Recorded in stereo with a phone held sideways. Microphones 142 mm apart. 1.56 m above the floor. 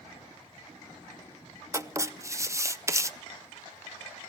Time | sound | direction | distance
1.7 | writing | 20° right (ahead or behind) | 0.6 m